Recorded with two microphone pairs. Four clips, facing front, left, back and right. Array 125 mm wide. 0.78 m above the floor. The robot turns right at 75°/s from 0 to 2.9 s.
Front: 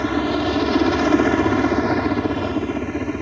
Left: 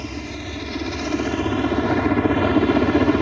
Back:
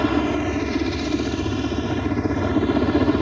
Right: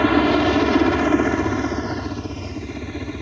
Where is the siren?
No siren in this recording.